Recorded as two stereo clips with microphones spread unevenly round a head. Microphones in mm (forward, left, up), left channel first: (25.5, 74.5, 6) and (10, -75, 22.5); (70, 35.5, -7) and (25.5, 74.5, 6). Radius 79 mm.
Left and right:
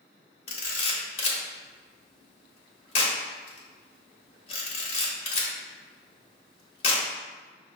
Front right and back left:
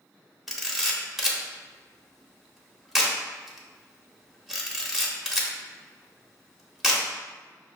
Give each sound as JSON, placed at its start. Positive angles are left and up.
{"t": 0.5, "sound": "a camera shutter", "azimuth_deg": 90, "distance_m": 0.7}